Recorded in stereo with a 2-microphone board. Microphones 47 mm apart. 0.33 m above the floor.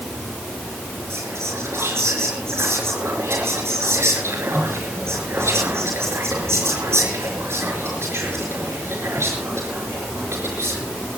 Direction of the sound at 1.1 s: 75° right (ahead or behind).